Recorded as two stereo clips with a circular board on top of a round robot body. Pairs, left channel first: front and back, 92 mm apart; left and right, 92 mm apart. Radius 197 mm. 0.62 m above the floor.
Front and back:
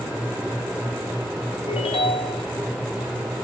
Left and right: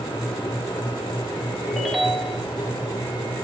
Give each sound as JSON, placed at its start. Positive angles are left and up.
{"t": 1.7, "sound": "a ringtone", "azimuth_deg": 0, "distance_m": 2.5}